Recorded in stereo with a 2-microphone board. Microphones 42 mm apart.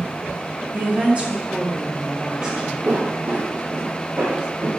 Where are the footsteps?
50° right (ahead or behind), 2.5 m; by 4.7 s 70° right (ahead or behind), 5 m.